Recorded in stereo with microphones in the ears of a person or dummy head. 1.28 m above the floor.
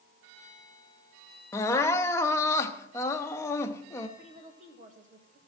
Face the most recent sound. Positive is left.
turn(degrees=-30)  # may be behind; listen again after turning